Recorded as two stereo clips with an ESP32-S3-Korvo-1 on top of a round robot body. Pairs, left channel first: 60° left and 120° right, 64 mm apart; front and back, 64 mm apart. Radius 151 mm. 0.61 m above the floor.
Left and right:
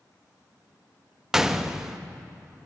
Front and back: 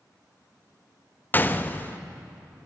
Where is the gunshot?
40° right, 1.2 m.